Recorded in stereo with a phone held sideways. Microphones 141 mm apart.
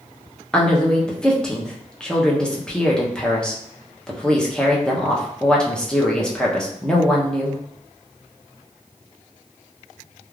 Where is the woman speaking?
5° left (ahead or behind), 0.6 m.